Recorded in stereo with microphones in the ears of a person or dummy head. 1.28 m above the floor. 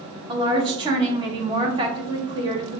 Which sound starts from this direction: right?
A woman speaking, at 0.3 s.